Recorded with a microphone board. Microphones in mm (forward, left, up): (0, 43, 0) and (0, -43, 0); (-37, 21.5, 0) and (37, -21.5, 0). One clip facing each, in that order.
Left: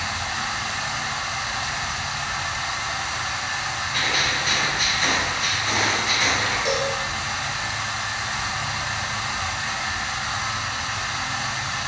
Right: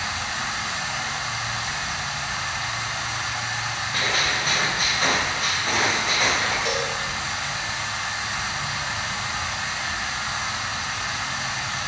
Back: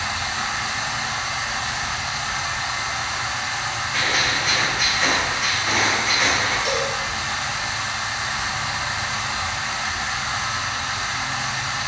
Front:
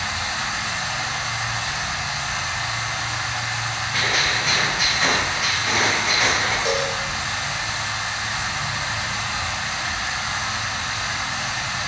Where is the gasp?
No gasp in this recording.